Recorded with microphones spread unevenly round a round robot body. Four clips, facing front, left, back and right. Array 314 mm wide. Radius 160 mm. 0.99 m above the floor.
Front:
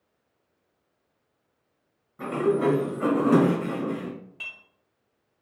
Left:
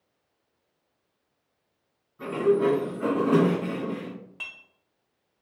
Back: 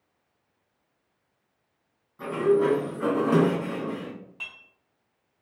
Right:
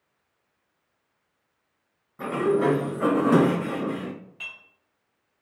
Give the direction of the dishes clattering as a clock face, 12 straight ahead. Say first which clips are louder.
Right 1 dB, even; 10 o'clock.